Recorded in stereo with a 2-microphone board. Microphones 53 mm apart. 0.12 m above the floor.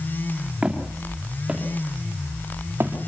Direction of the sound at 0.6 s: 20° right (ahead or behind).